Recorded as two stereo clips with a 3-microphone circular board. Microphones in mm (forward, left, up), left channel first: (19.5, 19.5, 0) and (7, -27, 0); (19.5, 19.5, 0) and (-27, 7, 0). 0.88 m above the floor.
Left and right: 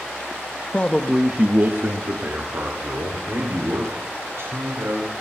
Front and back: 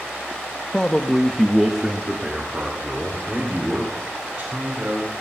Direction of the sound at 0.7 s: 65° left.